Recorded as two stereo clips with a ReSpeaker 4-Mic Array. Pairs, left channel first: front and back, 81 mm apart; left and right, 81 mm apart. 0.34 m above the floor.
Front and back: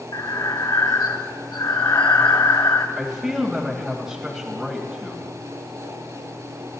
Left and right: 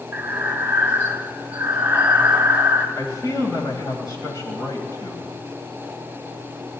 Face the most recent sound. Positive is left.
turn(degrees=95)